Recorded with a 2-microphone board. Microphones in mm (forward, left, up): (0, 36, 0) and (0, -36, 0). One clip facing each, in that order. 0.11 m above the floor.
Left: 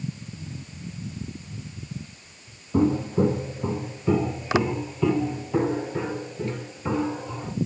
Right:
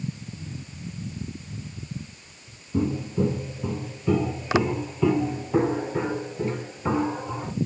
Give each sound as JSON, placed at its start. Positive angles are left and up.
{"t": 2.7, "sound": "footsteps", "side_deg": 60, "distance_m": 1.0}